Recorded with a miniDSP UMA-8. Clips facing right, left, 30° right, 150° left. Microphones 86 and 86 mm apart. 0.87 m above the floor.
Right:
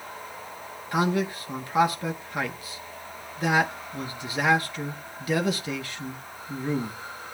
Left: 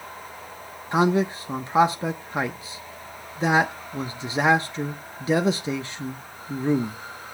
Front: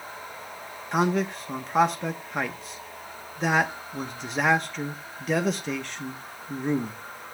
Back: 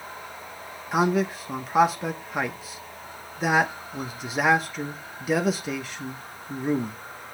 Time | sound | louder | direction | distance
0.9 | a man speaking | left 4 dB, back 2 dB | 70° left | 0.9 m